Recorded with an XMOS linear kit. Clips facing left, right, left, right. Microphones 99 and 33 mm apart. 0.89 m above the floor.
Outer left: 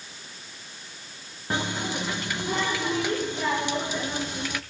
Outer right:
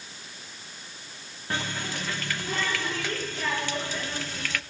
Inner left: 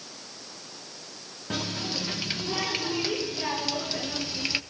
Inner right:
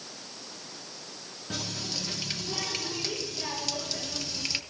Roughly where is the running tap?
Centre.